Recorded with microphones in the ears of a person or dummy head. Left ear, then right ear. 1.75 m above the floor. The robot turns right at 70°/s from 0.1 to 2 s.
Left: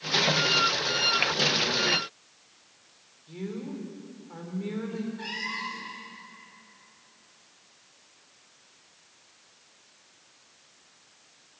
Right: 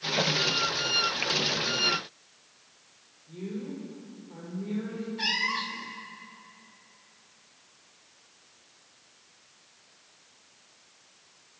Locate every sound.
3.3 s a woman speaking: 70° left (ahead or behind), 5 m
5.2 s a cat meowing: 45° right (ahead or behind), 2.0 m